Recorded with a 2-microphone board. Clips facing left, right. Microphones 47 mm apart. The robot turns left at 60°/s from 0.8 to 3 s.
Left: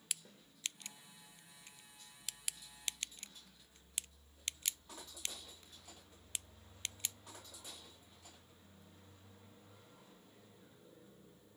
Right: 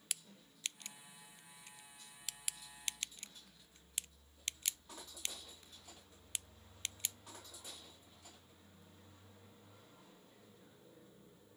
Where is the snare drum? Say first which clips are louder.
Even; 80° left, 7.5 m.